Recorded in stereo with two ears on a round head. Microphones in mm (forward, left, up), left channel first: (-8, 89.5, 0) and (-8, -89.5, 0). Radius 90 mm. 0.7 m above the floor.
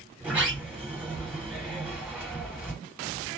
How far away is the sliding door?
About 1.2 m.